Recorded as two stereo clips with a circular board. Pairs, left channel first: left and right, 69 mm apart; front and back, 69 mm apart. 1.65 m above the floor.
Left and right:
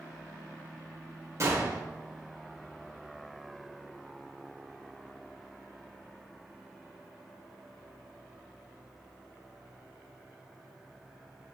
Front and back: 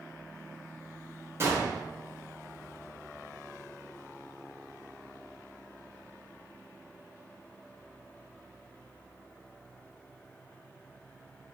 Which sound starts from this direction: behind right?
A gunshot, at 1.4 s.